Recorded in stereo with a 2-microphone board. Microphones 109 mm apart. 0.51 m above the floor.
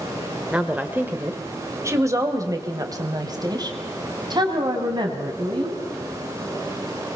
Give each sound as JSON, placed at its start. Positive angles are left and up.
{"t": 0.5, "sound": "a woman speaking", "side_deg": -10, "distance_m": 1.7}